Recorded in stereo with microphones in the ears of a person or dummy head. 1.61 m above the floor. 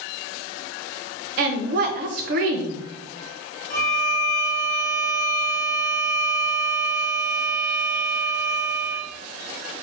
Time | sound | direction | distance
1.4 | a woman speaking | 50° right (ahead or behind) | 0.7 m
3.7 | a violin | 55° left (ahead or behind) | 1.8 m